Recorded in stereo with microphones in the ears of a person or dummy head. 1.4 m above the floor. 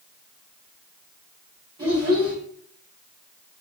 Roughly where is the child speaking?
Right.